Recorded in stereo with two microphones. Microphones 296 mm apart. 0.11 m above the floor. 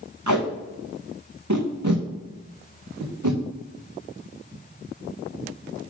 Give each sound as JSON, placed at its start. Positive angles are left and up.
{"t": 0.3, "sound": "tape being pulled", "side_deg": -75, "distance_m": 2.0}